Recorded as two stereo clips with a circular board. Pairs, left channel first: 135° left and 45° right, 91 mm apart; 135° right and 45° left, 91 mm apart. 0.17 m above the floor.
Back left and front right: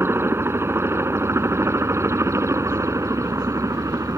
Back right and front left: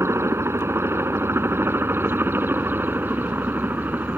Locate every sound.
0.0 s a helicopter: straight ahead; by 4.2 s 15° right